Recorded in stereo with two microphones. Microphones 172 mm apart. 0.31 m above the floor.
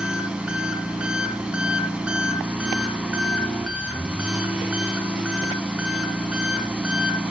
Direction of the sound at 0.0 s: 5° right (ahead or behind).